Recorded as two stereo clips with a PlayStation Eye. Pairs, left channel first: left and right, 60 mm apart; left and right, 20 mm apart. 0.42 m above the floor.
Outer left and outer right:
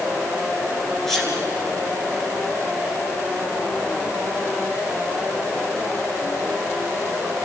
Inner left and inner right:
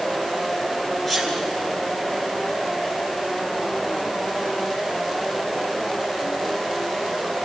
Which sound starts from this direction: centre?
A sneeze, at 1.1 s.